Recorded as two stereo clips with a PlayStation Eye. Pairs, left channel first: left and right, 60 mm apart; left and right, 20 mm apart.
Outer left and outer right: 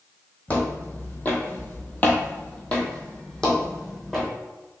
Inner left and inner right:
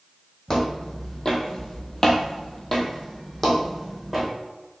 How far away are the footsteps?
About 1.0 m.